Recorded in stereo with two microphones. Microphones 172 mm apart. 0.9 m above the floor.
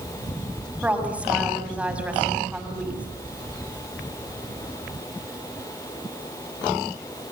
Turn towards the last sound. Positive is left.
turn(degrees=-5)  # may be behind; listen again after turning